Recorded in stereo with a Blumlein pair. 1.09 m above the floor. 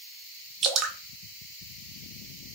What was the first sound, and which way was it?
Dripping, 25° right.